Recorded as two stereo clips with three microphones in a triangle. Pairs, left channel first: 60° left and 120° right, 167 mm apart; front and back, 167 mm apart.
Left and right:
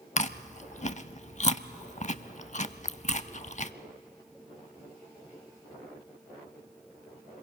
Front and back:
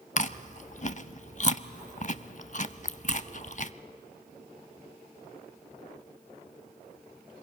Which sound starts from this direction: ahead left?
Chewing, at 0.2 s.